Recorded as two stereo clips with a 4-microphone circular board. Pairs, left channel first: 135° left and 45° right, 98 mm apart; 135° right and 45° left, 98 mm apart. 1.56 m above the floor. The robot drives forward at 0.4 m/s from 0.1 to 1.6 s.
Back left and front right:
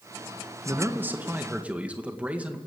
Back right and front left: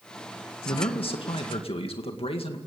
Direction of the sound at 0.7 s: 110° right.